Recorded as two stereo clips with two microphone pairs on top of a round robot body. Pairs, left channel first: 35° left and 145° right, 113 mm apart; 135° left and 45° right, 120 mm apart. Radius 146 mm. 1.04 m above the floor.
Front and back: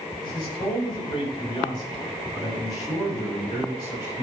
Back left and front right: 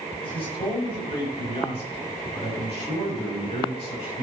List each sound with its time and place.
0.2 s a man speaking: 85° left, 5.5 m; by 4.2 s 95° left, 8 m